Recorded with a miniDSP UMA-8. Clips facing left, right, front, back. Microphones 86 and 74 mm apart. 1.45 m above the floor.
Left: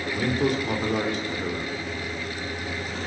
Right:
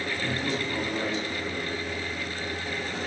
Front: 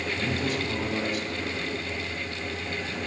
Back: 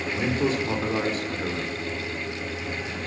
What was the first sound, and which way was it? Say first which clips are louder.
A man speaking: left 9 dB, back 7 dB; 120° left.